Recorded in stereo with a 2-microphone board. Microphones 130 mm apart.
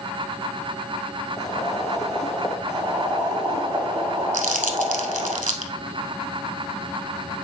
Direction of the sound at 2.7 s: 35° right (ahead or behind).